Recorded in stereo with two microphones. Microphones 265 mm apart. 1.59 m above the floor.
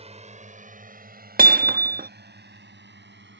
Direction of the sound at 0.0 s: 20° right (ahead or behind).